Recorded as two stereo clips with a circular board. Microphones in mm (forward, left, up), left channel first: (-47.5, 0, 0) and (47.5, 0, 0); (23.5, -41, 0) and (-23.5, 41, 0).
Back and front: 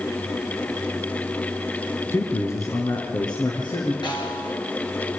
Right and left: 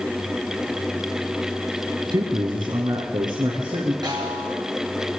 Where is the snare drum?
150° left, 5 m.